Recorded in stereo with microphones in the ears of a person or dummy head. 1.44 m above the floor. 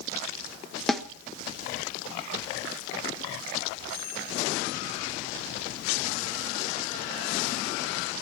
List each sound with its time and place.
0.9 s a snare drum: centre (ahead or behind), 1.0 m